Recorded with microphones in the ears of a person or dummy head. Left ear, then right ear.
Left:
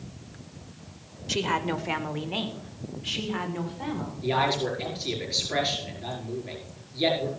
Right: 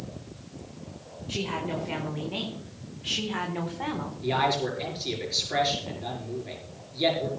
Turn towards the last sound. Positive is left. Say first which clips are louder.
# even
turn(degrees=0)  # may be behind; listen again after turning